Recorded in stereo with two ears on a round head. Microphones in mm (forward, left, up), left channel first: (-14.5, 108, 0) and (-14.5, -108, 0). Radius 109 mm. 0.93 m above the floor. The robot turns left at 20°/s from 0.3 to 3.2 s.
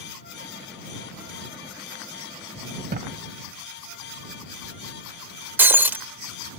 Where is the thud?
40° right (ahead or behind).